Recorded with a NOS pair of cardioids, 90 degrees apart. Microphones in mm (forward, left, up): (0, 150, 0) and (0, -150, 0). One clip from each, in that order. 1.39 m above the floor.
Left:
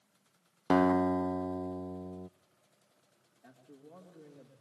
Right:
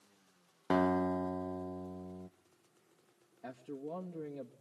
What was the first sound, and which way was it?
A guitar, 20° left.